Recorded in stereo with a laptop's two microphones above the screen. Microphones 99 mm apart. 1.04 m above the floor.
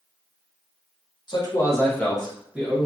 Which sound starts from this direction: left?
A man speaking, at 1.3 s.